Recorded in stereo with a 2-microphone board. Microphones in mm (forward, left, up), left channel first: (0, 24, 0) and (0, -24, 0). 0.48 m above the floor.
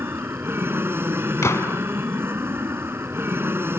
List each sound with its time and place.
0.0 s an aircraft: 55° right (ahead or behind)
1.4 s a gunshot: 80° left